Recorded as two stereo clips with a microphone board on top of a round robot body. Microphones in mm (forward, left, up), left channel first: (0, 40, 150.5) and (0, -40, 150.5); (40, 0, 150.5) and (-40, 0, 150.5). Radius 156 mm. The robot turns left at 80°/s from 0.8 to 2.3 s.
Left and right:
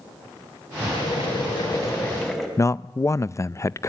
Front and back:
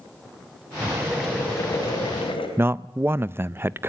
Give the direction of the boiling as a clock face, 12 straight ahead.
8 o'clock.